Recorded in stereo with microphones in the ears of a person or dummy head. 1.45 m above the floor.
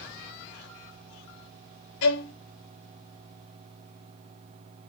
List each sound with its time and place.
2.0 s a violin: 70° left (ahead or behind), 0.7 m